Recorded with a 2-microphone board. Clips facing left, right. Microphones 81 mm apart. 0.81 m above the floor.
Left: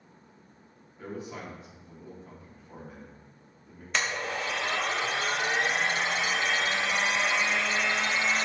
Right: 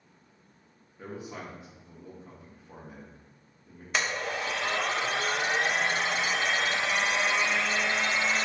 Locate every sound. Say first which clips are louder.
1.0 s a man speaking: left 1 dB; 15° right (ahead or behind), 0.6 m
3.9 s a blender: even; 10° right (ahead or behind), 0.6 m